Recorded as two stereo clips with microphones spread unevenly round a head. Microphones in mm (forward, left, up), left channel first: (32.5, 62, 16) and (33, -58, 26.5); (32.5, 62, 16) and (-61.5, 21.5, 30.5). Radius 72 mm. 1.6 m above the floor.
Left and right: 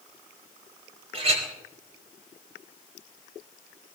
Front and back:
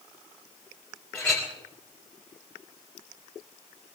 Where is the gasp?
No gasp in this recording.